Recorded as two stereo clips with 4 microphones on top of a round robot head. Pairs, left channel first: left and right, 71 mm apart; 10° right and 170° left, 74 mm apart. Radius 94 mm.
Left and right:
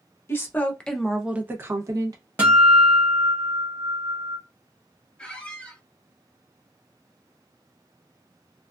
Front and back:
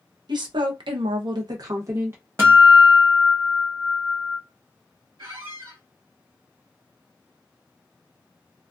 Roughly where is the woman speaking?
Behind left.